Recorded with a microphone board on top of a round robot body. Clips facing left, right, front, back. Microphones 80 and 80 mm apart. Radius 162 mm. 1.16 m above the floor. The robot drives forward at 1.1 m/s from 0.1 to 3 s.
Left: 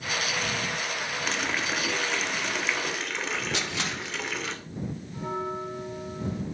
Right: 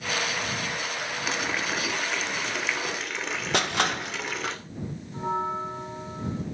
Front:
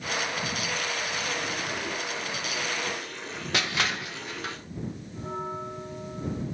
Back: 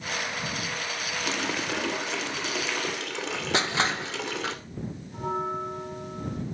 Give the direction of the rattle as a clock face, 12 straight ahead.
I don't hear a rattle.